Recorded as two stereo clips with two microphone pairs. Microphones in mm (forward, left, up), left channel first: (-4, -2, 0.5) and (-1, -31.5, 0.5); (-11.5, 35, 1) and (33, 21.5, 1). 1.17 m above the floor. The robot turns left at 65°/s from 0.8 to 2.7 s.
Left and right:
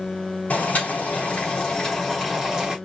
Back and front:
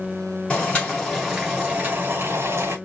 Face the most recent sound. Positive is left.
turn(degrees=-30)